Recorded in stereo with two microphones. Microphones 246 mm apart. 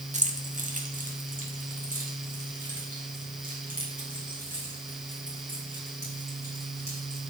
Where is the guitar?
I don't hear a guitar.